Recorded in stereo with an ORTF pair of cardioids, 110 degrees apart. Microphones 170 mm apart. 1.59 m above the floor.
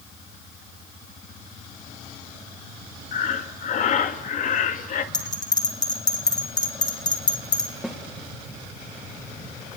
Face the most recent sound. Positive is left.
turn(degrees=0)